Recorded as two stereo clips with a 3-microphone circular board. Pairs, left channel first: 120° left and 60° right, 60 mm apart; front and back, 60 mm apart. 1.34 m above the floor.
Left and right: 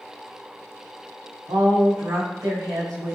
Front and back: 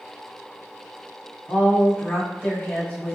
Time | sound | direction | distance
1.5 | a woman speaking | 70° right | 1.3 m